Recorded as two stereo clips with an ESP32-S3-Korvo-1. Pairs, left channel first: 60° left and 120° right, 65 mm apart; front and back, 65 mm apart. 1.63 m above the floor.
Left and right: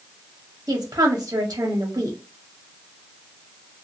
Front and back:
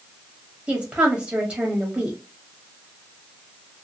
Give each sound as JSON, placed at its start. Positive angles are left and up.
{"t": 0.7, "sound": "a woman speaking", "azimuth_deg": -105, "distance_m": 0.9}